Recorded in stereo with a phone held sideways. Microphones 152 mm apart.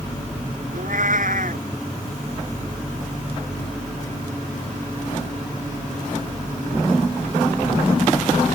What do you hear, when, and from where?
0.7 s a cat meowing: 70° right (ahead or behind)